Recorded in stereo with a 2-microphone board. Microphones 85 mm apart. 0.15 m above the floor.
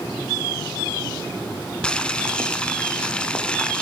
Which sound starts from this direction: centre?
Boiling, at 1.8 s.